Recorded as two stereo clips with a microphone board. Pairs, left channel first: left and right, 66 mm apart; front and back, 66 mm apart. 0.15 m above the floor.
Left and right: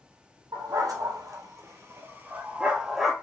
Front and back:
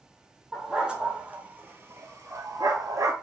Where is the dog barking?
95° right, 1.6 m; by 3.1 s straight behind, 1.2 m.